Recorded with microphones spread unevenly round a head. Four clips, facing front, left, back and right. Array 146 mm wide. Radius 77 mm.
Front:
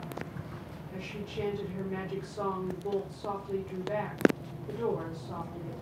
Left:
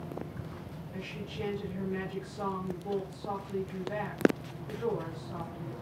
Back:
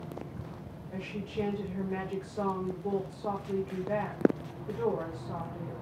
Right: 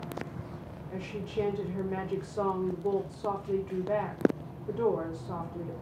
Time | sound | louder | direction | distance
0.9 | a woman speaking | right 8 dB, back 3 dB | 95° right | 3.5 m